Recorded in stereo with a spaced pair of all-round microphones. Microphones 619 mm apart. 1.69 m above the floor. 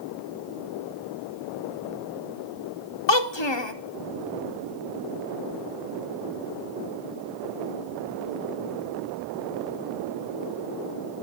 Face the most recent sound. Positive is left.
turn(degrees=45)  # may be behind; listen again after turning